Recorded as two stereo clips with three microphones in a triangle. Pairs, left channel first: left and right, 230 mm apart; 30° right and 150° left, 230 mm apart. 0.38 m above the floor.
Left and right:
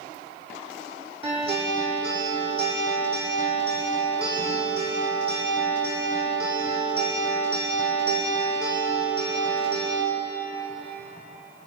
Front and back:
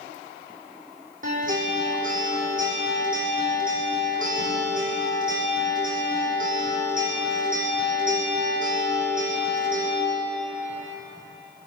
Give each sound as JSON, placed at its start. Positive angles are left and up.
{"t": 1.2, "sound": "a guitar", "azimuth_deg": -155, "distance_m": 8.5}